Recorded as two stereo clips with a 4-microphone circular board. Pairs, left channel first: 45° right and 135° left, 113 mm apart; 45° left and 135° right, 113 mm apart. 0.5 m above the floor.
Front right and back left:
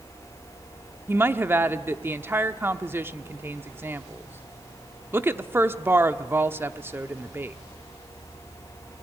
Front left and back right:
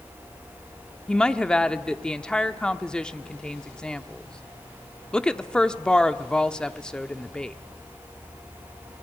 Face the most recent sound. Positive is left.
turn(degrees=115)